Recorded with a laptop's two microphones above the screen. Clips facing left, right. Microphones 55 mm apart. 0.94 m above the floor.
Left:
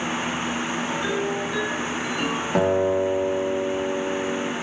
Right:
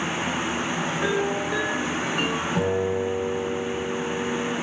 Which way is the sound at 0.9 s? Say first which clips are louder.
Right 3 dB; 70° right (ahead or behind).